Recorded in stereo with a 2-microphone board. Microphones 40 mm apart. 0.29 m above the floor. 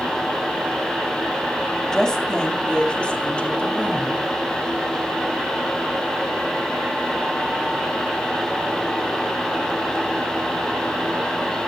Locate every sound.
1.9 s a woman speaking: 15° left (ahead or behind), 2 m; by 4.2 s 40° left (ahead or behind), 3 m